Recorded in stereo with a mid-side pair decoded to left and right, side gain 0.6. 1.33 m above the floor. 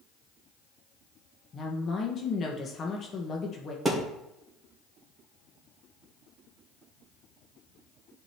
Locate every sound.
1.5 s a woman speaking: 40° left, 1.4 m
3.9 s a thud: 10° right, 2.5 m